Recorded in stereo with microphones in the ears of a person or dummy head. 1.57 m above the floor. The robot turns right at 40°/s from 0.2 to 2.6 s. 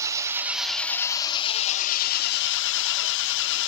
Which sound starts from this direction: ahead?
An engine running, at 0.0 s.